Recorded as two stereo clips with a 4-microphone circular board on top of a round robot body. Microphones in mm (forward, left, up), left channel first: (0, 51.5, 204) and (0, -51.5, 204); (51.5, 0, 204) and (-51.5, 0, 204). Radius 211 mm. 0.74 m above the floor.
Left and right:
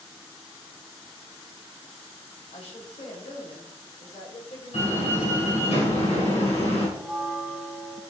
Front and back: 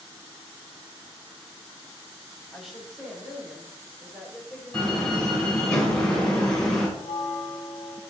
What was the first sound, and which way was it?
A woman speaking, 90° left.